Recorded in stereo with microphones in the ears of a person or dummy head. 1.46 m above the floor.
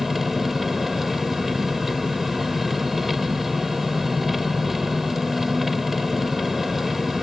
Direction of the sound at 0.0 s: Centre (ahead or behind).